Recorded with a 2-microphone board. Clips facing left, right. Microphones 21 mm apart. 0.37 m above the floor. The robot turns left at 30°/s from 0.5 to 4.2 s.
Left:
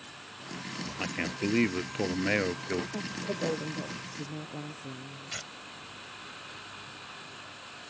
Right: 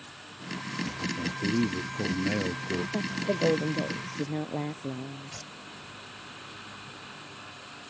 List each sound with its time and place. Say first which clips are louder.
1.0 s a man speaking: left 1 dB; 85° left; by 2.8 s 30° left
2.9 s a woman speaking: right 5 dB; 30° right; by 5.4 s 65° right
5.3 s tearing paper: left 2 dB; 40° left (ahead or behind)